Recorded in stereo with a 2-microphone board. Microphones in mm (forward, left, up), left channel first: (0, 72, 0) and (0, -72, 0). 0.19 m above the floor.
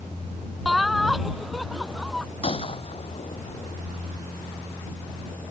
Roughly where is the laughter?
Centre.